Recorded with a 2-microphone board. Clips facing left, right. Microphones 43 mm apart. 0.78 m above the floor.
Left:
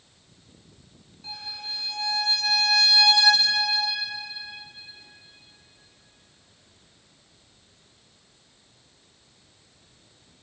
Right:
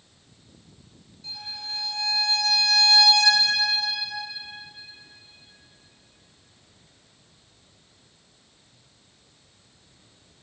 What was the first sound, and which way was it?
A violin, 30° left (ahead or behind).